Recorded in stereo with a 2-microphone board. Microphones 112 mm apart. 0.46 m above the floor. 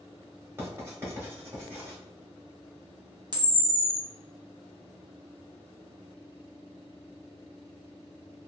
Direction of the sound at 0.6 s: 20° right (ahead or behind).